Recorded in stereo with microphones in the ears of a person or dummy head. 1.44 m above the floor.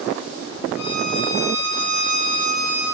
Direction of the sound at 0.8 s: 35° left (ahead or behind).